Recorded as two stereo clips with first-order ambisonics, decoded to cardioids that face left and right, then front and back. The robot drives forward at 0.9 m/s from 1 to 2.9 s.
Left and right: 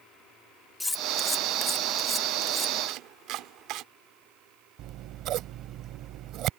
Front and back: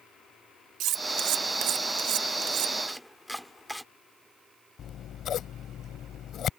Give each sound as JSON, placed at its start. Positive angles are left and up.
{"t": 0.8, "sound": "cutlery clinking", "azimuth_deg": 170}
{"t": 2.9, "sound": "chopping", "azimuth_deg": -85}
{"t": 4.8, "sound": "scissors", "azimuth_deg": -50}